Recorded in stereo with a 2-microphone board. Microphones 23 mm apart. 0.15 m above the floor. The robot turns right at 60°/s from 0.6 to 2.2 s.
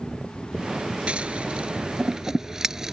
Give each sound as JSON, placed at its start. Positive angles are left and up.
{"t": 1.1, "sound": "scissors", "side_deg": -55}